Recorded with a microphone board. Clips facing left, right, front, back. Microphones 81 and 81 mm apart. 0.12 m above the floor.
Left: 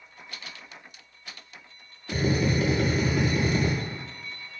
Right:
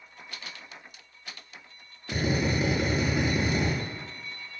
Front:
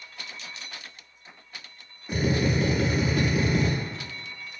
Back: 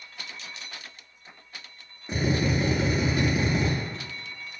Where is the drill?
145° right, 0.8 m.